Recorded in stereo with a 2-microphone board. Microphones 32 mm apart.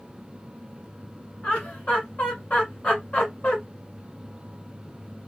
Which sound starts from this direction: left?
Laughter, at 1.4 s.